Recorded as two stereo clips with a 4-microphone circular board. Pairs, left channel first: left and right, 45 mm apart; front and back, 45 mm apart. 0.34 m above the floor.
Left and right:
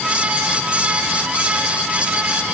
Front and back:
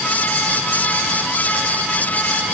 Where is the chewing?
I don't hear chewing.